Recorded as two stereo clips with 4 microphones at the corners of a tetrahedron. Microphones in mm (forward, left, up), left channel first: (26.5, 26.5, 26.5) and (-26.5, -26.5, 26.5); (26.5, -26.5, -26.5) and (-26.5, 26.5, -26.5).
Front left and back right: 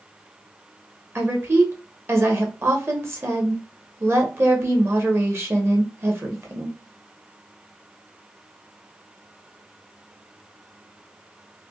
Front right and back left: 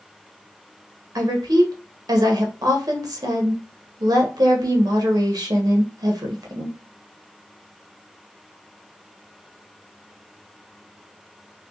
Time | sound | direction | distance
1.1 | a woman speaking | 170° left | 1.0 m